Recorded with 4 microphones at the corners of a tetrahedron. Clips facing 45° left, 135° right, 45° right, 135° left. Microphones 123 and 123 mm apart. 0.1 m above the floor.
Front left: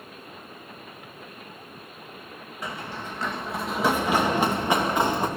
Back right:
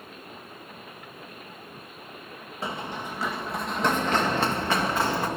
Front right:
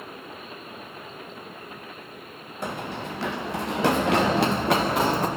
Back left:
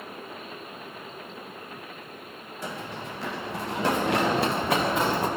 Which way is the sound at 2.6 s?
70° right.